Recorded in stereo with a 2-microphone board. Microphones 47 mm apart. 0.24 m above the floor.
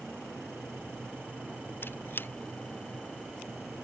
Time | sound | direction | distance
1.8 | a squeak | 50° left (ahead or behind) | ?